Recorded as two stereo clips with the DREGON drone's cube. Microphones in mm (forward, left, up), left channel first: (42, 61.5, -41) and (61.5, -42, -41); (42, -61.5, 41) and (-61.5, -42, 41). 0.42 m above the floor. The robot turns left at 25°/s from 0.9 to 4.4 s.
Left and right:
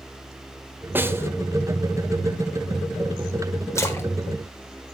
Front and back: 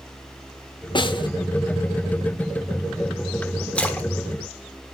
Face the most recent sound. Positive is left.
turn(degrees=45)